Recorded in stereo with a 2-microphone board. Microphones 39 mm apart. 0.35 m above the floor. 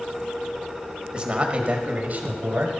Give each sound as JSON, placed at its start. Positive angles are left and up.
{"t": 1.1, "sound": "a man speaking", "side_deg": -25, "distance_m": 1.3}